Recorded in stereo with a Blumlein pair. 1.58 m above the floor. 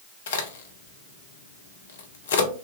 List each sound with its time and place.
0.3 s a crack: 60° left, 0.7 m